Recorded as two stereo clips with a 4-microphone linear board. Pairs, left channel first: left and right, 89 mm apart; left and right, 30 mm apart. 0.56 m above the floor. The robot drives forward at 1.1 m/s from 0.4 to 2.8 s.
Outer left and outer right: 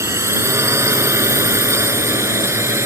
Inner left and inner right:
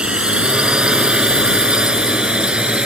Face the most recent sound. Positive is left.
turn(degrees=-30)  # may be behind; listen again after turning